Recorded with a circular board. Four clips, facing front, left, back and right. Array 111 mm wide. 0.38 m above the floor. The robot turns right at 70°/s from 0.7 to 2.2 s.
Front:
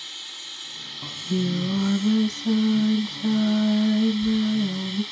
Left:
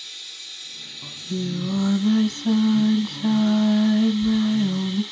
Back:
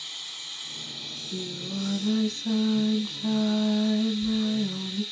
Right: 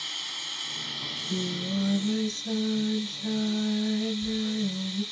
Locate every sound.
0.0 s running water: 85° right, 0.9 m; by 5.1 s 20° left, 0.9 m
1.0 s singing: 10° right, 0.9 m; by 5.0 s 70° left, 0.9 m